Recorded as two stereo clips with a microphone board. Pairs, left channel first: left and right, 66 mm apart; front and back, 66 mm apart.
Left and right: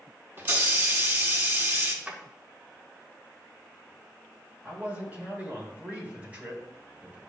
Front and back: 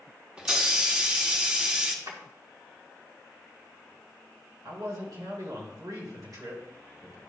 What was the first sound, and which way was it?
A hiss, 115° right.